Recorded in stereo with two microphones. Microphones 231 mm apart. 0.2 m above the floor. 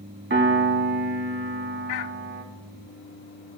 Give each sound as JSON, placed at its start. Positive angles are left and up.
{"t": 0.3, "sound": "a piano", "side_deg": -55, "distance_m": 0.6}